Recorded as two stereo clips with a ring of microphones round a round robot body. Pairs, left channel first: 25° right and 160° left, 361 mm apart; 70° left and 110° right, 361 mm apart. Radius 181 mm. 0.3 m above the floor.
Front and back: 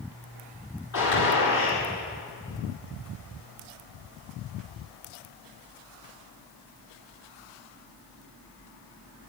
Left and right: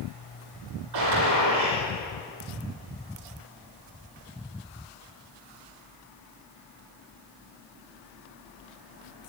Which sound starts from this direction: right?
A gunshot, at 0.9 s.